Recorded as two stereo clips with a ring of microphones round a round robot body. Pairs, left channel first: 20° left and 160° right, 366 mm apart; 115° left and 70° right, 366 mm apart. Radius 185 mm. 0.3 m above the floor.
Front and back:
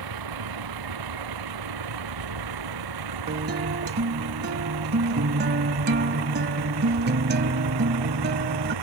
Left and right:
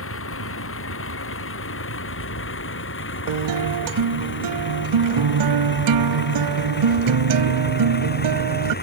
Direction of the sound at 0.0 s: 170° left.